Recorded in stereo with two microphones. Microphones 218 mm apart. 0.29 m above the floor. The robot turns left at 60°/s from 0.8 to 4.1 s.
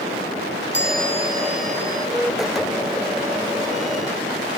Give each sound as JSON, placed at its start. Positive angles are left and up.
{"t": 0.7, "sound": "a chime", "azimuth_deg": -130}